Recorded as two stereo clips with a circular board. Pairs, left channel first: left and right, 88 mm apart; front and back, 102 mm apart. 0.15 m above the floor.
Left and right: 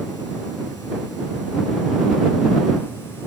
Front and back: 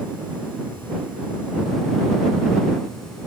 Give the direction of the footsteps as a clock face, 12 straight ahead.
No footsteps in this recording.